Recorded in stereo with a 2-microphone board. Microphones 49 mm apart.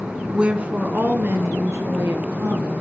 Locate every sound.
0.3 s a woman speaking: 15° right (ahead or behind), 1.1 m; by 2.7 s 75° right (ahead or behind), 3.5 m